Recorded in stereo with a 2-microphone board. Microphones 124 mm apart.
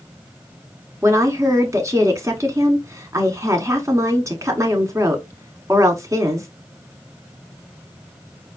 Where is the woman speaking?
25° right (ahead or behind), 1.2 m.